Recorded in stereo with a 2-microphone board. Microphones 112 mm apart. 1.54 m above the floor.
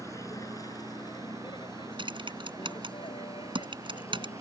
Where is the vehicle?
25° left (ahead or behind); by 4.4 s 55° left (ahead or behind).